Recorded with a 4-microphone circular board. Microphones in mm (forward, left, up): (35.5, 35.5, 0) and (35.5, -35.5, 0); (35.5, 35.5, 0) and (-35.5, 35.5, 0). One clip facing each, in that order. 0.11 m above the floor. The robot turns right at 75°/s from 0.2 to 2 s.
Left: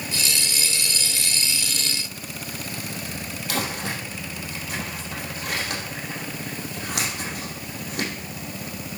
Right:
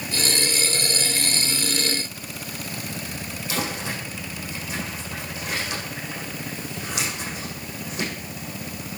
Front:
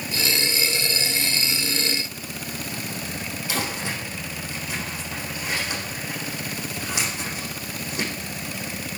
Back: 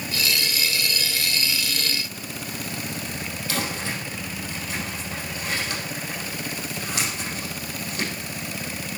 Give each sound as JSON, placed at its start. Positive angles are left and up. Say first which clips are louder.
{"t": 3.5, "sound": "crumpling", "louder": "even, even", "azimuth_deg": 75, "distance_m": 5.5}